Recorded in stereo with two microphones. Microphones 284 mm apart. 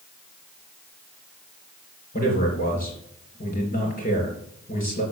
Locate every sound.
2.1 s a man speaking: 30° left (ahead or behind), 4 m